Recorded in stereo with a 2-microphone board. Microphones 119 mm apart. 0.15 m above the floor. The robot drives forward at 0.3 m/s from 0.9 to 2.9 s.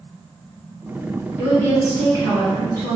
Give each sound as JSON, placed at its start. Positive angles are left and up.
{"t": 1.4, "sound": "a woman speaking", "side_deg": 20, "distance_m": 1.1}